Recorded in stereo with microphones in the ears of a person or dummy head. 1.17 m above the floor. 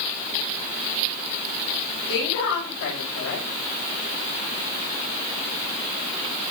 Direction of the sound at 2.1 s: 75° left (ahead or behind).